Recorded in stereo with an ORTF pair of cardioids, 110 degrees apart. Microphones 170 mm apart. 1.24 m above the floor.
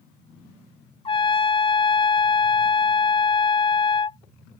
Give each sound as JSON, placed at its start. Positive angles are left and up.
{"t": 1.1, "sound": "a trumpet", "azimuth_deg": 35}